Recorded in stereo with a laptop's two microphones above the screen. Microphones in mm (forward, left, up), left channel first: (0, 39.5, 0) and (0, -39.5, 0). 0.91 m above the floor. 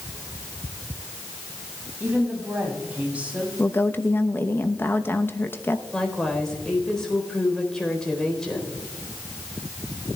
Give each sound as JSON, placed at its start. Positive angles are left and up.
{"t": 2.0, "sound": "a woman speaking", "side_deg": -20, "distance_m": 6.0}
{"t": 3.6, "sound": "a woman speaking", "side_deg": 25, "distance_m": 0.9}
{"t": 5.9, "sound": "a woman speaking", "side_deg": 10, "distance_m": 4.0}